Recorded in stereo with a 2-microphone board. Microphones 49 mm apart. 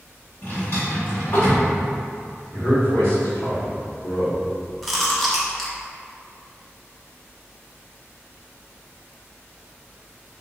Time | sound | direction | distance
0.4 | a drawer | 55° left (ahead or behind) | 1.5 m
2.5 | a man speaking | 75° left (ahead or behind) | 1.5 m
4.8 | chewing | centre (ahead or behind) | 0.7 m